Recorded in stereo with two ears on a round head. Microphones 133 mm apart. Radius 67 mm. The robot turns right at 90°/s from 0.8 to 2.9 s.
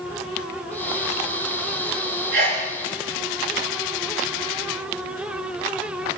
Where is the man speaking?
No man speaking in this recording.